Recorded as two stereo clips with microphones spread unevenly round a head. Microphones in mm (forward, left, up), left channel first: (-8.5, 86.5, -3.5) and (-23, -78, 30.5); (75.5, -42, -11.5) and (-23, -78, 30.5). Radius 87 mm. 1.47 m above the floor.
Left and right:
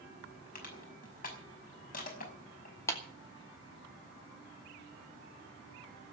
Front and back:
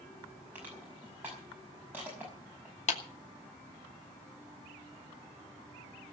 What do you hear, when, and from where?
0.6 s crushing: 125° left, 5.5 m
2.9 s a clap: 5° left, 2.5 m